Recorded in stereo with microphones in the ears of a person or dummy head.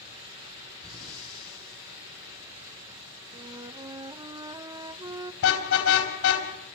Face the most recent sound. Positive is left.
turn(degrees=70)  # may be behind; listen again after turning